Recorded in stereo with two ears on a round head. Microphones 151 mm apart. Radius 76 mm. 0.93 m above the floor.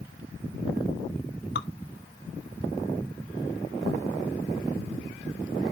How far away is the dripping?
About 0.9 m.